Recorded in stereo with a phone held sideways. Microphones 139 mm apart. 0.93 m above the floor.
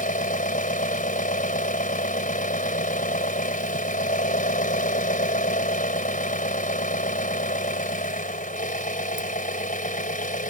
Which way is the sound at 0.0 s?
65° left (ahead or behind).